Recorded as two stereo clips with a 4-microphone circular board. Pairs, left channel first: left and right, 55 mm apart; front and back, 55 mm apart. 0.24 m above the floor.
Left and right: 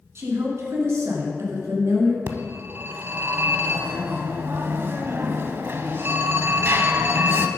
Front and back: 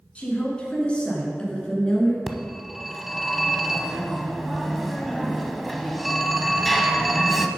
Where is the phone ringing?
90° right, 0.8 m.